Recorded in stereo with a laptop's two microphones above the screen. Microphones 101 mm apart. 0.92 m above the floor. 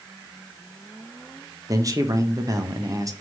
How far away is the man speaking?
About 1.1 m.